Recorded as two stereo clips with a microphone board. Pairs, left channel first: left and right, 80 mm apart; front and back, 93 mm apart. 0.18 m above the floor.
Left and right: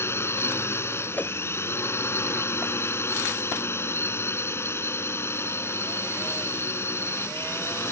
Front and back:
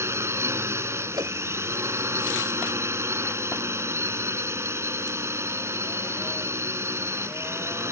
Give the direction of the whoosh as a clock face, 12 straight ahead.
7 o'clock.